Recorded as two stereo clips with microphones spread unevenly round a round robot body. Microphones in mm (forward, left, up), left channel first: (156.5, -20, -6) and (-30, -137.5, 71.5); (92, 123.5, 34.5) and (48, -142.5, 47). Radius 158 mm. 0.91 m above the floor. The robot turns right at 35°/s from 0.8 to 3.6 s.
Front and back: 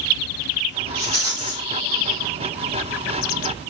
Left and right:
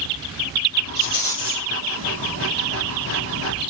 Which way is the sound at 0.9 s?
Straight behind.